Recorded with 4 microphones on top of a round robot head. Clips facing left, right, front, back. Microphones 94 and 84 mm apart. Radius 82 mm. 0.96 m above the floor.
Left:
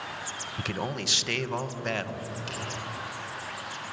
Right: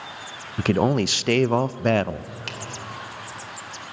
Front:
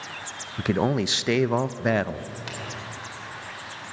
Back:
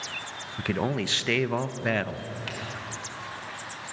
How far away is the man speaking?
About 0.5 m.